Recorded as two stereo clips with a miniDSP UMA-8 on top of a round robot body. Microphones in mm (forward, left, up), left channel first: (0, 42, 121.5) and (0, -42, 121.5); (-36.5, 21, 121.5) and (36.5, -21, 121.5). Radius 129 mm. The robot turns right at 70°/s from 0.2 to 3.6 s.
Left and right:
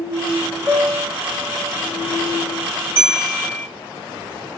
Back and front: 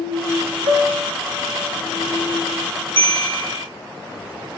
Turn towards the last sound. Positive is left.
turn(degrees=15)